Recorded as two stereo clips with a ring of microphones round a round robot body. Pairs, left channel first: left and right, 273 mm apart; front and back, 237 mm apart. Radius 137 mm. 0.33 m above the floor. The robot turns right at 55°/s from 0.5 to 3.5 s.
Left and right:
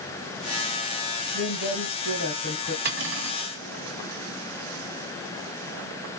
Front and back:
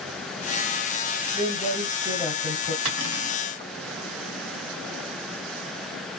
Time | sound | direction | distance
1.3 | a woman speaking | 45° left | 2.5 m
2.9 | cutlery clinking | 145° right | 1.7 m